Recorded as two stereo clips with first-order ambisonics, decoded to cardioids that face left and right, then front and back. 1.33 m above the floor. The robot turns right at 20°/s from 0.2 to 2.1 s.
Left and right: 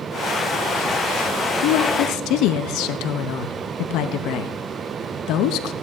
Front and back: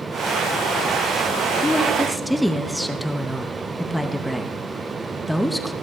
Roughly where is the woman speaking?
Left.